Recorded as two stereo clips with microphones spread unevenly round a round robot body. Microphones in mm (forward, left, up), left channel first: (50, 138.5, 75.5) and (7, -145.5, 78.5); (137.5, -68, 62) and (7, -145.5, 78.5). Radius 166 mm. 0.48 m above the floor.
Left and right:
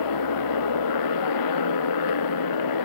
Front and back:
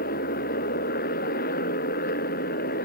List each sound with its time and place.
0.0 s a motorcycle: 70° left